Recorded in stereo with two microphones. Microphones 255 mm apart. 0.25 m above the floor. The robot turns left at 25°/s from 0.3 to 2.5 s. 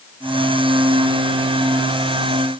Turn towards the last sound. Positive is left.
No sound to turn to.